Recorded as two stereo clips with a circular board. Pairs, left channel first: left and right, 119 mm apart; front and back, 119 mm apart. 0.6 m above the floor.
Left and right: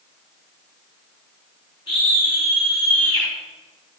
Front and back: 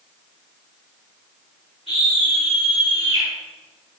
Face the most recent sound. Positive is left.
turn(degrees=30)